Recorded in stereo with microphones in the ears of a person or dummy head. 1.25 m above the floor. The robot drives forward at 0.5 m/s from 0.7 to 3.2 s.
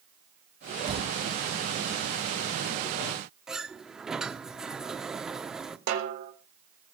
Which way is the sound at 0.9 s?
35° right (ahead or behind).